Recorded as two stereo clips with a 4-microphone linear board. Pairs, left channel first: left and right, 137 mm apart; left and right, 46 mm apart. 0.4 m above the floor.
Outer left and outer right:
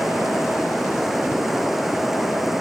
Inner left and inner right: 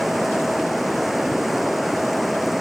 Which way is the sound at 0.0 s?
Centre (ahead or behind).